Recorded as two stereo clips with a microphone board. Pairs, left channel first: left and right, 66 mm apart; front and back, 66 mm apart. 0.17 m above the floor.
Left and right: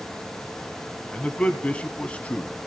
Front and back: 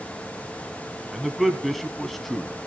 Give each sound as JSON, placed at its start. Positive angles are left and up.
{"t": 1.1, "sound": "a man speaking", "azimuth_deg": 85, "distance_m": 1.0}